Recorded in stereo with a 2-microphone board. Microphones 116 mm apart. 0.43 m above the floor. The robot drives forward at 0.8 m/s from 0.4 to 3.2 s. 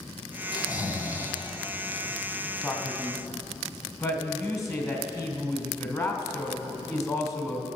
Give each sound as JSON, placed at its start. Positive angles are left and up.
{"t": 0.5, "sound": "snoring", "side_deg": 35, "distance_m": 1.1}
{"t": 2.6, "sound": "a man speaking", "side_deg": 25, "distance_m": 2.5}